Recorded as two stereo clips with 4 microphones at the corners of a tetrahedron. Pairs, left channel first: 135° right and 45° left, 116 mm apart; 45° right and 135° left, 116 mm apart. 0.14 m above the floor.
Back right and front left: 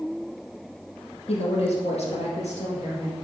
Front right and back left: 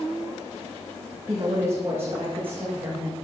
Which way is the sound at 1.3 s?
165° right.